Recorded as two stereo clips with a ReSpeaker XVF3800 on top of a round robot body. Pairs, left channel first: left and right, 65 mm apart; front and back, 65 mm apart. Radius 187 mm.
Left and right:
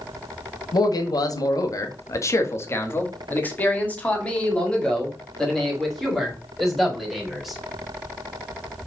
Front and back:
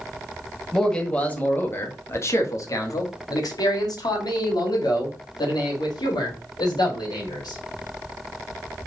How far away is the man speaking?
About 1.5 m.